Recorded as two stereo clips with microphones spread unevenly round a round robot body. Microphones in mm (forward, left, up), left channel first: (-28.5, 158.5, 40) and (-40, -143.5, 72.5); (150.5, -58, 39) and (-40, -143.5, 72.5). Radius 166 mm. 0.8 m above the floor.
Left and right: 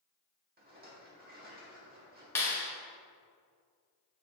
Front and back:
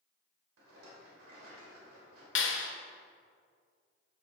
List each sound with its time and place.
0.6 s a rattle: 155° right, 1.8 m
2.4 s a clap: 5° left, 1.0 m